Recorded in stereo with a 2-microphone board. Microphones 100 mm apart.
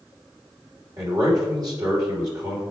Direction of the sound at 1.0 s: 40° right (ahead or behind).